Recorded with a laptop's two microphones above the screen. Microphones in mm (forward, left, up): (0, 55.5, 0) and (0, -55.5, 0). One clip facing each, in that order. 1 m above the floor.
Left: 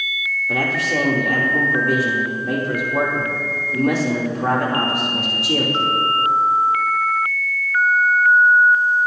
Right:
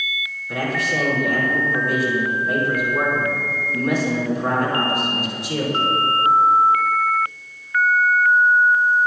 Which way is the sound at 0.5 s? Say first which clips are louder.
Left 1 dB; 80° left.